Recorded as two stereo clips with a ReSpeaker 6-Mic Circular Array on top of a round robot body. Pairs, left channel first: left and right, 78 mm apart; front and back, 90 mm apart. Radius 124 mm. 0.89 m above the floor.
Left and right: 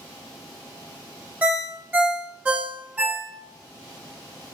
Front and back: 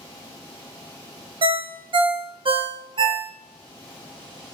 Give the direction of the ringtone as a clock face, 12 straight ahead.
5 o'clock.